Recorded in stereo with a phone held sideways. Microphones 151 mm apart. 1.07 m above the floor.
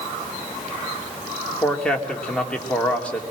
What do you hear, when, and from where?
1.6 s a man speaking: 10° left (ahead or behind), 2.5 m